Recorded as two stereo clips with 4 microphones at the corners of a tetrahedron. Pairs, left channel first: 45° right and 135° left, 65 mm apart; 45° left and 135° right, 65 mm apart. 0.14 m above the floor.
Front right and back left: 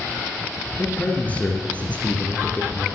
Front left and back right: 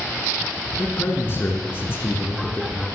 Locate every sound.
0.8 s a man speaking: 15° left, 2.5 m